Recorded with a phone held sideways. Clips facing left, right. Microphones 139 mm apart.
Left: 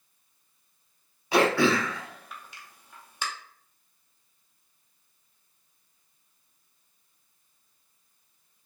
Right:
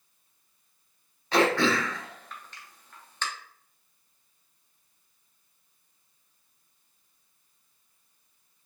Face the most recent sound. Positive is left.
turn(degrees=10)  # may be behind; listen again after turning